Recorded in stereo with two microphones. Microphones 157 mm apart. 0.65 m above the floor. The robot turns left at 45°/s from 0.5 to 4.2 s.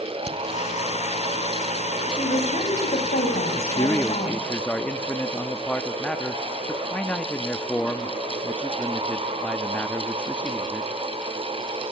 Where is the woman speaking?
150° left, 5.5 m; by 4.4 s 55° left, 5.5 m.